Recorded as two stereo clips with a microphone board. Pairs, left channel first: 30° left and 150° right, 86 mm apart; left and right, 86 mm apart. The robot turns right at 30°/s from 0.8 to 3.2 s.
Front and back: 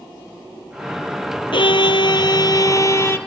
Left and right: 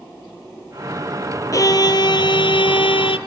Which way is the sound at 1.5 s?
40° left.